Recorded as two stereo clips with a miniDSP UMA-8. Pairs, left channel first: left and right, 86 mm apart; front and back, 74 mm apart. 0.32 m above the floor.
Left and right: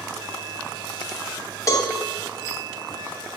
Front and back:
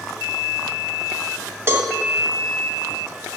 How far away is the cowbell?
About 1.6 m.